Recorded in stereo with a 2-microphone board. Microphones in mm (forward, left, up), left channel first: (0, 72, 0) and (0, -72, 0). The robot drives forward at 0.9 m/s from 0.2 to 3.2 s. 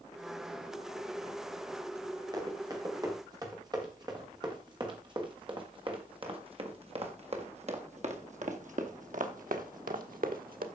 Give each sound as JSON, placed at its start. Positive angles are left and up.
{"t": 2.3, "sound": "running footsteps", "side_deg": -30, "distance_m": 4.0}